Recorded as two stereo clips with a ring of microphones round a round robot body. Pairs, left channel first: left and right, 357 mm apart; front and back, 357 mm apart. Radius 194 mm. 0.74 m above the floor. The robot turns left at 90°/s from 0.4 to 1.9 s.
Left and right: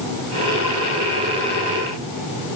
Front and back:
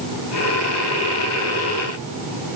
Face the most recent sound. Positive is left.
No sound to turn to.